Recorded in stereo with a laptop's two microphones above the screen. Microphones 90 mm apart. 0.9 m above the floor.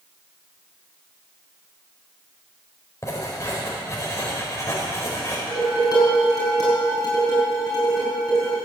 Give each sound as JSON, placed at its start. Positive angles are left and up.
{"t": 3.0, "sound": "writing", "side_deg": 35, "distance_m": 4.0}
{"t": 5.5, "sound": "dishes clattering", "side_deg": 45, "distance_m": 6.5}